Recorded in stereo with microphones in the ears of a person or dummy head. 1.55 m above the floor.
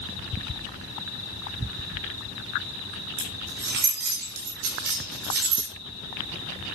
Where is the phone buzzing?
I don't hear a phone buzzing.